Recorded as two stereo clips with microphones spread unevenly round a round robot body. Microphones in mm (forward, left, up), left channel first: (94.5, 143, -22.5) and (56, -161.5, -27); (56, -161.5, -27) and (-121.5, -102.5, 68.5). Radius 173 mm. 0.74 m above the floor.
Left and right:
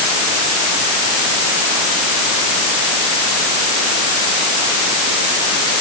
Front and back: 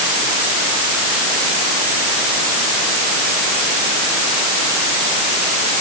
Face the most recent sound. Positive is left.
No sound to turn to.